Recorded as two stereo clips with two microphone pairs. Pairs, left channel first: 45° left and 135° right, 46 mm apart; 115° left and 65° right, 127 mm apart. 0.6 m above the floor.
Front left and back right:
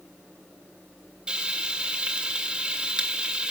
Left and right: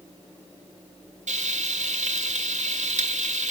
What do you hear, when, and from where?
1.3 s frying: 65° right, 1.8 m